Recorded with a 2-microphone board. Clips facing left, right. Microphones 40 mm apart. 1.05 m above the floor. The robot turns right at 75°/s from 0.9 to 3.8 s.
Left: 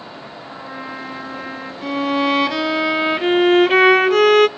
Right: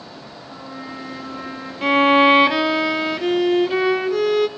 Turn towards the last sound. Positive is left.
turn(degrees=80)